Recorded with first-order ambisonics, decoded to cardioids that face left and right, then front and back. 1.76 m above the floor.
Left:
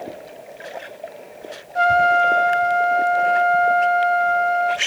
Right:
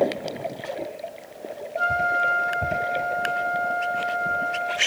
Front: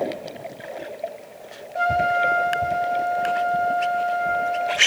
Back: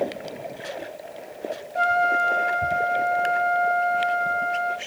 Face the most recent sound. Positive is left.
turn(degrees=95)